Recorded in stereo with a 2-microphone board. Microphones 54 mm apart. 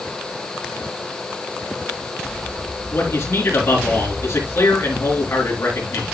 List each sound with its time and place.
2.9 s a man speaking: 50° left (ahead or behind), 4 m